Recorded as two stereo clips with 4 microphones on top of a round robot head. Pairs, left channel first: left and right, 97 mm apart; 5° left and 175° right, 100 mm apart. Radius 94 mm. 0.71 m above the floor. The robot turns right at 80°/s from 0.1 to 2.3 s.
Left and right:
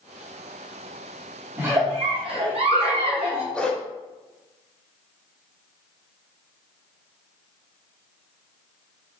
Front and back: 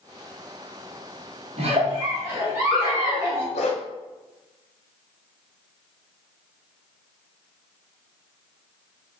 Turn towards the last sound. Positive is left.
turn(degrees=5)